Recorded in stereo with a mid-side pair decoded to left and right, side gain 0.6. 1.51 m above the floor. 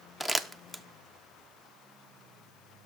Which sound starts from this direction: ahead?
Crumpling, at 0.2 s.